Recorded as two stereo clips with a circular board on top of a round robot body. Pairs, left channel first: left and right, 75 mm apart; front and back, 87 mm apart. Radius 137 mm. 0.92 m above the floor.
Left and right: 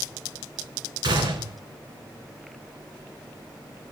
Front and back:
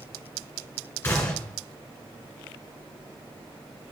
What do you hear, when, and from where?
1.0 s a gunshot: 70° right, 2.0 m